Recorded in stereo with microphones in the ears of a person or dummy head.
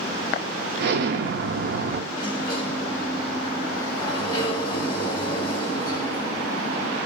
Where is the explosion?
65° right (ahead or behind), 0.5 m.